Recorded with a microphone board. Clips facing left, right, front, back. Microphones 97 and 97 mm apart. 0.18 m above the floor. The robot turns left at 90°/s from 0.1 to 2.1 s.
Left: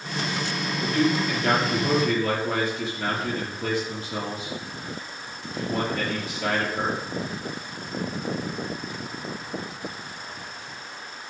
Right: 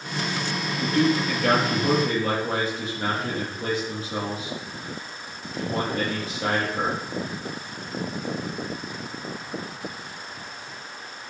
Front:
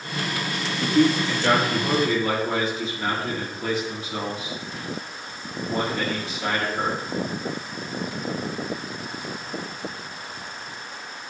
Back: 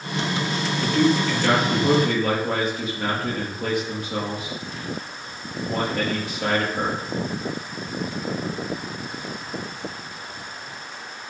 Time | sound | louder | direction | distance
0.8 | a man speaking | right 1 dB, front 1 dB | 25° right | 5 m